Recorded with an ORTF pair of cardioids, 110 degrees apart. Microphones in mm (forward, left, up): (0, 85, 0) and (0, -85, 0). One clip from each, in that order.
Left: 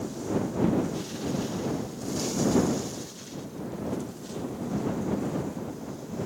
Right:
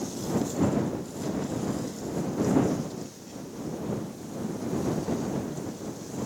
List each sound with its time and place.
Only background noise.